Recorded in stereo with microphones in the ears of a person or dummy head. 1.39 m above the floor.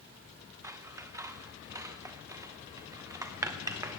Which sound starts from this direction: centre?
Scissors, at 0.6 s.